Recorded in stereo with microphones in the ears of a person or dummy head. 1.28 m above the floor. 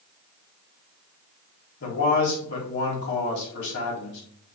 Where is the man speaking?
70° left (ahead or behind), 3 m.